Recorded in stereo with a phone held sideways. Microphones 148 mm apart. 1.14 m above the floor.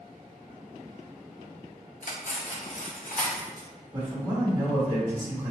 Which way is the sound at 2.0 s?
55° left (ahead or behind).